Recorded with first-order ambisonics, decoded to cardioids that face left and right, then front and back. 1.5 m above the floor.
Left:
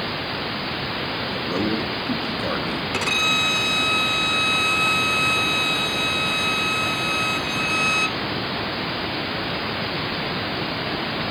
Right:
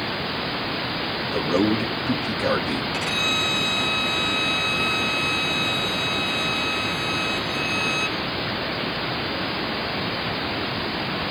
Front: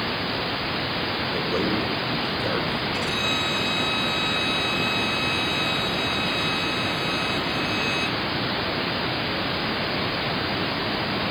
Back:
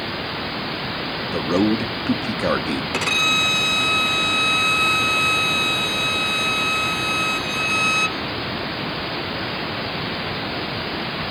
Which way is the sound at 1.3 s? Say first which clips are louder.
Right 5 dB, back 7 dB; 165° right.